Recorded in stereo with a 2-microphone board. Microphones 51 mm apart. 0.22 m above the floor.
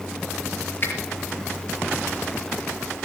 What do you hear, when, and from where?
0.8 s a finger snap: 45° left (ahead or behind), 4.5 m